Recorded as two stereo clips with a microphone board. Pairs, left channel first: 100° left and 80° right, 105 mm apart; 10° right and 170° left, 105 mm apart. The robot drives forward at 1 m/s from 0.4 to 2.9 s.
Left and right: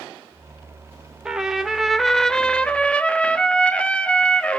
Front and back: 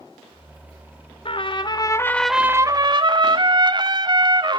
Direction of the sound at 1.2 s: 5° left.